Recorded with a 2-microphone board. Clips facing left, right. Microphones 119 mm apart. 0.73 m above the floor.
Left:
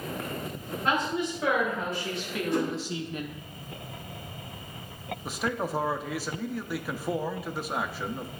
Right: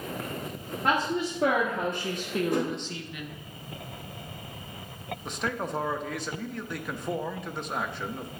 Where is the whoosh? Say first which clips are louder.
Left 2 dB; 60° right (ahead or behind), 3 m.